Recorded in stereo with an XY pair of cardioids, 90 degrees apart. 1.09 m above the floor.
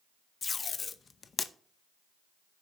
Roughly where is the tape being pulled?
Ahead left.